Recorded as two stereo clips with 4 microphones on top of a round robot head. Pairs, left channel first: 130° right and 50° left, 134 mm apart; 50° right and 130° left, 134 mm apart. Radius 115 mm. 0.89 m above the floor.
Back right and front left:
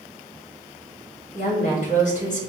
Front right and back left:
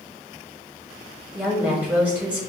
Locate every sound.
1.3 s a woman speaking: 150° right, 2.5 m